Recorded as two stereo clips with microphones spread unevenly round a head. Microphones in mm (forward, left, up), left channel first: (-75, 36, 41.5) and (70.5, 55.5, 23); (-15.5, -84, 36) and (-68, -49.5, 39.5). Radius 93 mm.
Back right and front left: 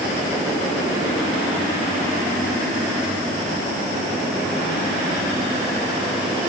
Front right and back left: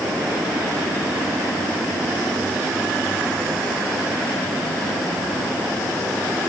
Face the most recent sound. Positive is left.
No sound to turn to.